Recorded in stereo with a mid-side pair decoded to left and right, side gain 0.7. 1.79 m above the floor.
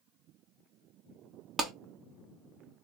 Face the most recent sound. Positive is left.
turn(degrees=-30)